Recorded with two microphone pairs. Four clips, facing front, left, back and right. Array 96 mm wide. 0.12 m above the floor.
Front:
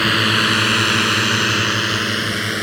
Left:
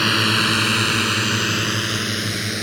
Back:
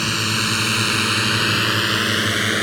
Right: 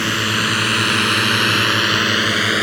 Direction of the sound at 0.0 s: 10° left.